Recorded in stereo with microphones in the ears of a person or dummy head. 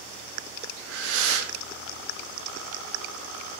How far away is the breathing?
About 0.6 m.